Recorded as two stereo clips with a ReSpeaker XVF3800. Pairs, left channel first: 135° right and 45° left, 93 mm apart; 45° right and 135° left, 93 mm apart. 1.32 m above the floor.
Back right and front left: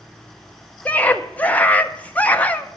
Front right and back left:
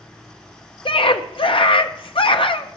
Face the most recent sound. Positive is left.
turn(degrees=-60)